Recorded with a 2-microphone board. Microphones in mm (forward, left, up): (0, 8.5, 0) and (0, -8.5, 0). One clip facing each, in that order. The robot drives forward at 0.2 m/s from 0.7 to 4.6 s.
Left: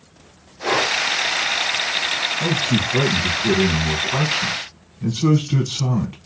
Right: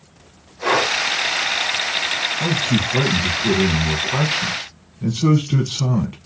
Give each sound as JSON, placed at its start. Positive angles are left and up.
{"t": 0.6, "sound": "breathing", "side_deg": -65, "distance_m": 1.4}
{"t": 2.4, "sound": "a man speaking", "side_deg": -5, "distance_m": 1.1}